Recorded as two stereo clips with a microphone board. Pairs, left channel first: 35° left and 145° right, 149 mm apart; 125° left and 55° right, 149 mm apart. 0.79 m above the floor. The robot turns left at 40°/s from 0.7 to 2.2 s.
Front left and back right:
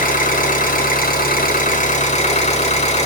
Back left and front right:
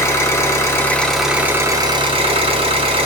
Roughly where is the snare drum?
No snare drum in this recording.